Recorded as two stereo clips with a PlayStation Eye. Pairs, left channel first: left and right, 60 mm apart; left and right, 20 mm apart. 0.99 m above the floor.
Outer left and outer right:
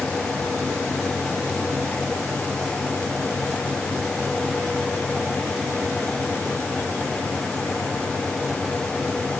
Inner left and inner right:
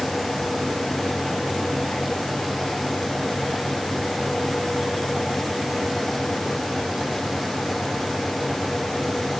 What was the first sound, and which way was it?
Only background noise.